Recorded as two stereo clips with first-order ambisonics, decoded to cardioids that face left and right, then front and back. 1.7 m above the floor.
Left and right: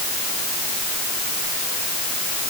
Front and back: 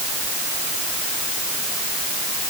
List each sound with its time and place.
Only background noise.